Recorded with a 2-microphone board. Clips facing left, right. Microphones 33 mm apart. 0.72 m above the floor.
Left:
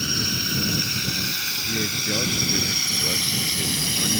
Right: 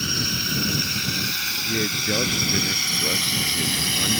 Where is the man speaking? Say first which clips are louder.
Right 2 dB; 20° right (ahead or behind).